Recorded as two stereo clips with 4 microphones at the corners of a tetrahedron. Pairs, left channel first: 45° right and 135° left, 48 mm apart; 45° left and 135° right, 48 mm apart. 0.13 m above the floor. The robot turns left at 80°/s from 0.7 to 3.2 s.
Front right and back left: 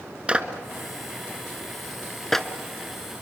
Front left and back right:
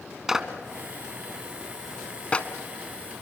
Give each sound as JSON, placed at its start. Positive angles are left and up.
{"t": 0.3, "sound": "a clap", "azimuth_deg": 160, "distance_m": 1.0}